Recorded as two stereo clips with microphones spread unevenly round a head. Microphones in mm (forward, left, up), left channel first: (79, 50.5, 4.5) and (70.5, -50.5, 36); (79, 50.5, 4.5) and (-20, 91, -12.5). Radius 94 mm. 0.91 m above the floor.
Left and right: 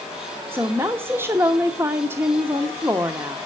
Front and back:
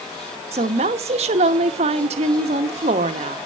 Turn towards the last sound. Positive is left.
turn(degrees=-175)